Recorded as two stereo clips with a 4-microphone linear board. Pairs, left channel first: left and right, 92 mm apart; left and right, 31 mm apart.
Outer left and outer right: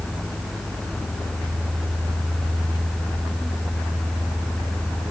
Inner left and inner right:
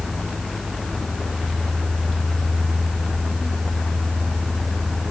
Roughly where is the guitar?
I don't hear a guitar.